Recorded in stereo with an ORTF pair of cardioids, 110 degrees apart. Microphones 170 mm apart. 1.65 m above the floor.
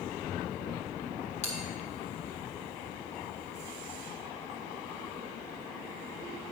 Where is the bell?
40° left, 2.5 m.